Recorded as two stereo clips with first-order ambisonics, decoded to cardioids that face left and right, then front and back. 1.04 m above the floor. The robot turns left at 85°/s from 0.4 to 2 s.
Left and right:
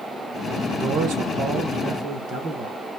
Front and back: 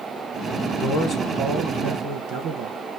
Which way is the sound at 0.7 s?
30° right.